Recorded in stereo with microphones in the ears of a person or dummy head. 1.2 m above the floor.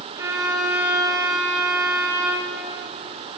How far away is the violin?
About 0.7 m.